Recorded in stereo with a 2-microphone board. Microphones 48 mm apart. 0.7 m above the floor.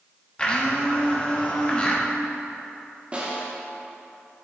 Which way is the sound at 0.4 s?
25° left (ahead or behind).